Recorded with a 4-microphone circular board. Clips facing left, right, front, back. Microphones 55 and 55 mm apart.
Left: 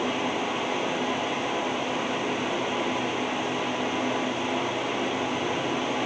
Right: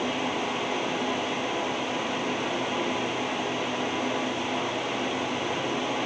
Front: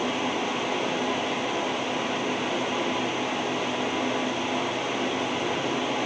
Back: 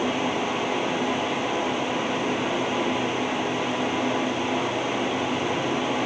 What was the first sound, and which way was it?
Only background noise.